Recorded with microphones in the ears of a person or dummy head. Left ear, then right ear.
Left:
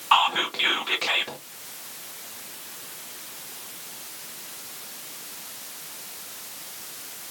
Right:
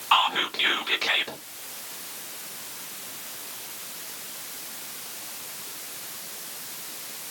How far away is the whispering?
About 0.6 m.